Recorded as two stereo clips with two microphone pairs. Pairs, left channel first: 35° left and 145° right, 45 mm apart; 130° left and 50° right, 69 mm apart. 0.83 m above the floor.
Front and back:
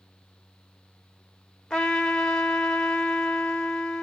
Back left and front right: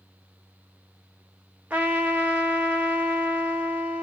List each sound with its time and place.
1.7 s a trumpet: 10° right, 0.9 m